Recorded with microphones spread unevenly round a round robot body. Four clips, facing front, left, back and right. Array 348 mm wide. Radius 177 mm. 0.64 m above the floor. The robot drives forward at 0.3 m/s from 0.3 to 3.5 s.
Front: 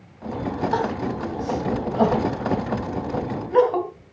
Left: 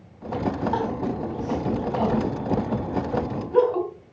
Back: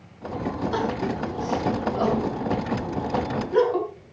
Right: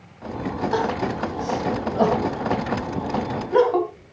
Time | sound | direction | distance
0.7 | crying | 35° right | 3 m